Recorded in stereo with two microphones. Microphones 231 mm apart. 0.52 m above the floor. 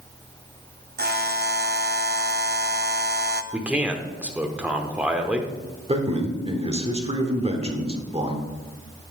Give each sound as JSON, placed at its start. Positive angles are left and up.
{"t": 1.0, "sound": "a buzzer", "side_deg": -45, "distance_m": 0.5}
{"t": 3.5, "sound": "a man speaking", "side_deg": -5, "distance_m": 1.0}
{"t": 5.9, "sound": "a man speaking", "side_deg": -25, "distance_m": 1.3}